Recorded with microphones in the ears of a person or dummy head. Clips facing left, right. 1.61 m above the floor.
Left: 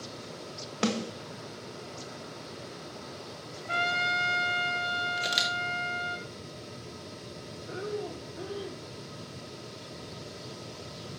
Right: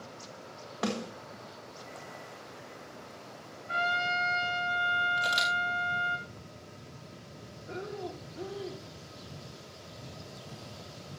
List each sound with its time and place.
0.8 s a snare drum: 35° left (ahead or behind), 1.6 m
3.7 s a trumpet: 60° left (ahead or behind), 2.5 m
5.2 s a camera shutter: 20° left (ahead or behind), 1.4 m
7.7 s breathing: 15° left (ahead or behind), 1.5 m